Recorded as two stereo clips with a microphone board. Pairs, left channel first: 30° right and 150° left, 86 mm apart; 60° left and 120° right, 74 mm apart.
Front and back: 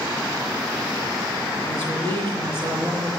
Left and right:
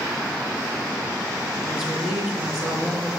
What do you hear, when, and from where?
1.6 s a woman speaking: 155° left, 4 m